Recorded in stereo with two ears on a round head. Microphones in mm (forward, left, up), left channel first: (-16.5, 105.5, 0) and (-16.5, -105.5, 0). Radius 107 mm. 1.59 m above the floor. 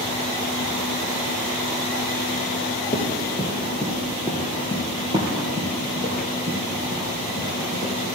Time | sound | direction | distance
2.9 | running footsteps | 10° left (ahead or behind) | 2.5 m